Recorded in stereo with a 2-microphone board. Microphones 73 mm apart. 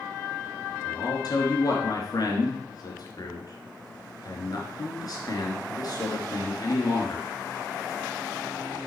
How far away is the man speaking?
About 2.5 m.